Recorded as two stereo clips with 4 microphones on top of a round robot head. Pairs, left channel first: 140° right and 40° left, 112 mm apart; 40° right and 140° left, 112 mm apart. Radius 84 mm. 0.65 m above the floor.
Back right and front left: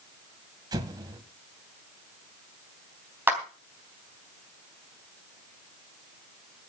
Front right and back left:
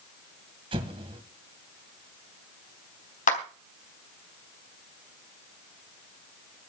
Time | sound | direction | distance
0.7 | an explosion | 95° left | 2 m
3.3 | a clap | 35° right | 3.5 m